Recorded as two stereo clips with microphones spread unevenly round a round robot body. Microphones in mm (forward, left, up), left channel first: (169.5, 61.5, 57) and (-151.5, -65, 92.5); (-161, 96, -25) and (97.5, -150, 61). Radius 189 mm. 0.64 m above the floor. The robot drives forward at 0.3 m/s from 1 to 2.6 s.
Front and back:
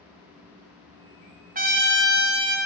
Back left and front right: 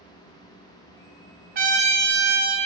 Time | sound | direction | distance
1.6 | a trumpet | 110° right | 0.7 m